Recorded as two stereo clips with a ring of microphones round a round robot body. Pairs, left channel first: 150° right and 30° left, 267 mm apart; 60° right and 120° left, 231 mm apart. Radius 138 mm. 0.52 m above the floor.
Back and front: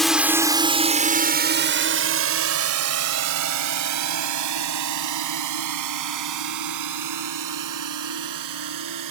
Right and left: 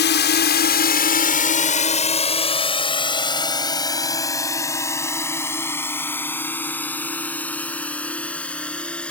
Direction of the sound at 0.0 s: 60° right.